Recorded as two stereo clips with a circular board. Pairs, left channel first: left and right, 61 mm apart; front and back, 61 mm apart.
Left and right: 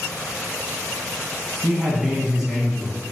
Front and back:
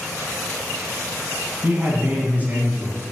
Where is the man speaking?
160° right, 1.1 m.